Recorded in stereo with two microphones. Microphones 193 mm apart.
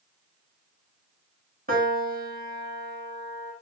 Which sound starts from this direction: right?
A piano, at 1.7 s.